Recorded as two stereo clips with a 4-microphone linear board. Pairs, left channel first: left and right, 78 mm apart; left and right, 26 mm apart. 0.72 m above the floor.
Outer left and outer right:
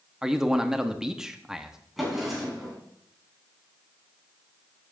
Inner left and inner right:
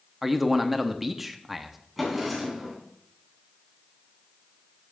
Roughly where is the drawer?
Centre.